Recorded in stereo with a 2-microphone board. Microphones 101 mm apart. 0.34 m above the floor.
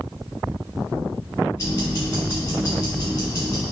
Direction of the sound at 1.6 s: 35° left (ahead or behind).